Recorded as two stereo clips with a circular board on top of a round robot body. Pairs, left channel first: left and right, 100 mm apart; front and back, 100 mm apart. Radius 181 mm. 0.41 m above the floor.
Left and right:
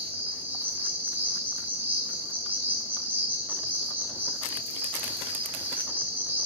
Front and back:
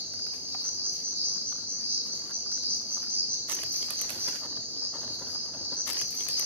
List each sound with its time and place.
0.0 s an insect: 140° right, 2.5 m